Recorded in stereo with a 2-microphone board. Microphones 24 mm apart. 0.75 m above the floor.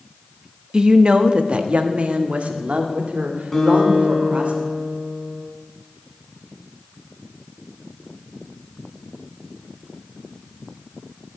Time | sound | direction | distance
0.7 | a woman speaking | 30° right (ahead or behind) | 1.0 m
3.5 | a guitar | 15° left (ahead or behind) | 6.5 m